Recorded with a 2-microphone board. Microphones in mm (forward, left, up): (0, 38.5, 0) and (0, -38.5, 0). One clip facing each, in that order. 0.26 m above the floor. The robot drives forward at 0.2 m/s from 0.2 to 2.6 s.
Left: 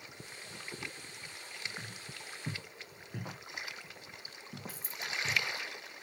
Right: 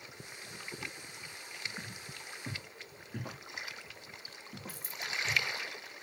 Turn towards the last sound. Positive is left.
turn(degrees=-55)  # may be behind; listen again after turning